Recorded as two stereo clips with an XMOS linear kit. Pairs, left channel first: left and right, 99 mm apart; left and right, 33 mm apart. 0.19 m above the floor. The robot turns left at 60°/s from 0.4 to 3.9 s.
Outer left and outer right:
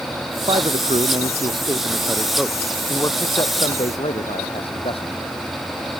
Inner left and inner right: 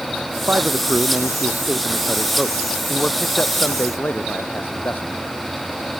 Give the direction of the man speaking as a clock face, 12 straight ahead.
2 o'clock.